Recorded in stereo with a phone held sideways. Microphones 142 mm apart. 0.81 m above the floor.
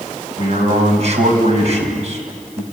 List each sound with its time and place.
0.4 s a man speaking: 50° right (ahead or behind), 4.5 m